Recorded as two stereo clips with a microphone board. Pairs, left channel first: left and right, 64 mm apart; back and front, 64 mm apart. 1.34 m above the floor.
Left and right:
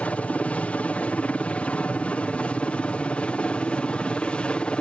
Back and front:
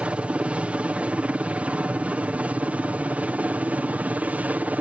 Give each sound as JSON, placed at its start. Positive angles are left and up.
{"t": 0.0, "sound": "a helicopter", "azimuth_deg": 50}